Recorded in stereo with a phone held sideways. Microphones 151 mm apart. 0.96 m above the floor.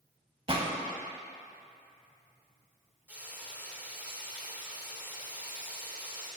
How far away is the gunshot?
About 0.9 m.